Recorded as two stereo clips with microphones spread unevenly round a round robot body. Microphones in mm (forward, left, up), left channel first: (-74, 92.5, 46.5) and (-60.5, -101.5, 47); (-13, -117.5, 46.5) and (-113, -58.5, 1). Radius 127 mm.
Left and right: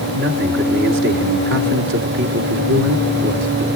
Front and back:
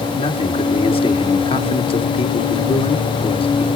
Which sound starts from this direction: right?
A man speaking, at 0.1 s.